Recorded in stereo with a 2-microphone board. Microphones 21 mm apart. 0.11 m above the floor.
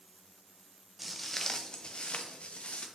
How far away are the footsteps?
About 1.1 m.